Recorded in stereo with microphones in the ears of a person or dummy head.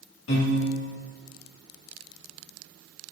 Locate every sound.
0.3 s a piano: 70° left (ahead or behind), 2 m